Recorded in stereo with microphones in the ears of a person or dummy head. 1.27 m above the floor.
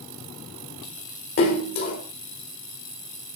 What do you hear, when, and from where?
1.4 s a splash: 45° left (ahead or behind), 4 m